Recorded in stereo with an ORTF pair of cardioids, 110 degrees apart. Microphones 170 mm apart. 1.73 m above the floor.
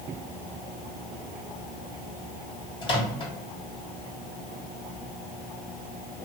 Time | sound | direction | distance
2.8 | a microwave | 30° left | 1.4 m